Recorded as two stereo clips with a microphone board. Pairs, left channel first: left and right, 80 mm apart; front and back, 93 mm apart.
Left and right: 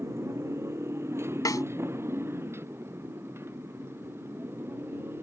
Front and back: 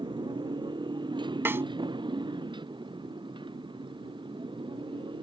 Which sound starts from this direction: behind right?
A motorcycle, at 0.0 s.